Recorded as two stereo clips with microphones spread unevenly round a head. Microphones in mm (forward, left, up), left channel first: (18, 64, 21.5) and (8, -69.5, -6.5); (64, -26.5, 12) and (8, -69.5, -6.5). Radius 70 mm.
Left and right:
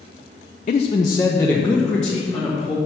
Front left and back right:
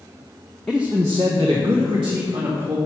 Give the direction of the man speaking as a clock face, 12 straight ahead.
8 o'clock.